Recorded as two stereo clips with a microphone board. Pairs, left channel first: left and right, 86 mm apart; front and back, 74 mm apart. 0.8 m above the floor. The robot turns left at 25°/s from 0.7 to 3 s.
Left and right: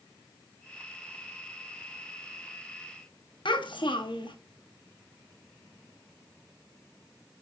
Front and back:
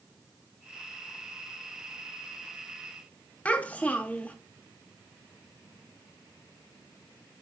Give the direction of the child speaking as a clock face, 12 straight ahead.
10 o'clock.